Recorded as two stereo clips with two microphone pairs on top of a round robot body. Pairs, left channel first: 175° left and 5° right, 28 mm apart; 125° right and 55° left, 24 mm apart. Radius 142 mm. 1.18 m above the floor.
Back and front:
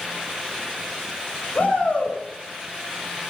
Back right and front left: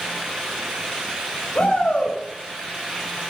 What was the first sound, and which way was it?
A shout, 150° right.